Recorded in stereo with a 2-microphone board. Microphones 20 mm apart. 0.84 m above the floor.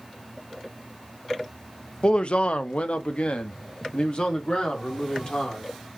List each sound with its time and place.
2.0 s a man speaking: 45° left (ahead or behind), 0.5 m; by 5.7 s 40° left (ahead or behind), 2 m